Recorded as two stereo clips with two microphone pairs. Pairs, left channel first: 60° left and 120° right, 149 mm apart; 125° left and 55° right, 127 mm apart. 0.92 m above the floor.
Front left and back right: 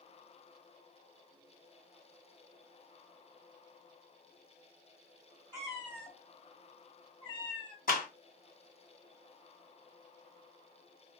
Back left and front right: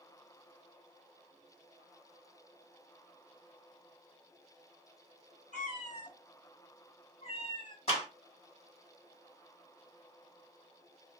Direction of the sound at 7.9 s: 85° left.